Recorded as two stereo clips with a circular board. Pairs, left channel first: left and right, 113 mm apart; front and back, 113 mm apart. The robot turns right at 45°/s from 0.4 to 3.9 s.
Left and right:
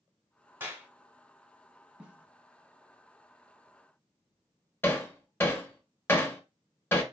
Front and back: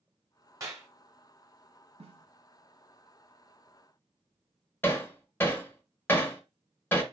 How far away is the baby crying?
I don't hear a baby crying.